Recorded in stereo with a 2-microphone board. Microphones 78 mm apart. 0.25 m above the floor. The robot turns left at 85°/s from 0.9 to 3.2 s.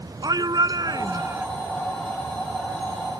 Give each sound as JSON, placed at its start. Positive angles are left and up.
{"t": 0.2, "sound": "a shout", "azimuth_deg": -100}